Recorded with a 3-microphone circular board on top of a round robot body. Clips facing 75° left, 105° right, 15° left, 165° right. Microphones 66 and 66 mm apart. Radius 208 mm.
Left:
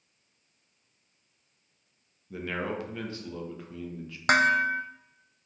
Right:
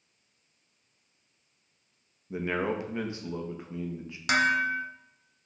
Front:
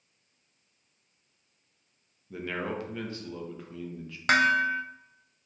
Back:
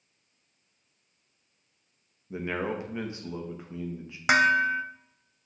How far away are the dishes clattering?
About 0.6 m.